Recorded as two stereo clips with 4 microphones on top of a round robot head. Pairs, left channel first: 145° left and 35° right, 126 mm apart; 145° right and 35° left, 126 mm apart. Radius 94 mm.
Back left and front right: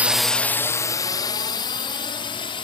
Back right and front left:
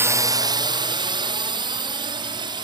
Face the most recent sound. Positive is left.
turn(degrees=90)